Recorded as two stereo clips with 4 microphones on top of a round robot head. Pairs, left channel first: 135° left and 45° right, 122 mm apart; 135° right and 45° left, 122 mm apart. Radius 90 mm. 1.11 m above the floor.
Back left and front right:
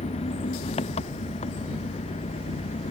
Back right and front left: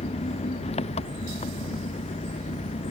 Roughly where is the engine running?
Behind.